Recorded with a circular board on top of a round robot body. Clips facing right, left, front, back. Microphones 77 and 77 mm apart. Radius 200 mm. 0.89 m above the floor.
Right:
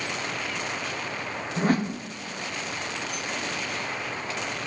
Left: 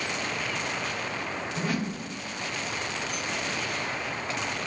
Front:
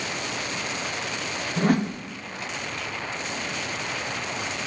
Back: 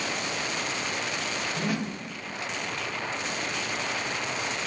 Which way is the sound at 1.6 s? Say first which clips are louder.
Right 7 dB, front 11 dB; 40° right.